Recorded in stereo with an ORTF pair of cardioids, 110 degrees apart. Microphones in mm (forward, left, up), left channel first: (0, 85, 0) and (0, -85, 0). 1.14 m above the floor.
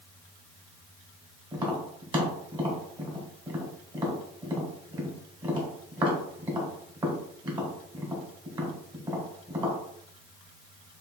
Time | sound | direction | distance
1.5 | tapping | 25° right | 2 m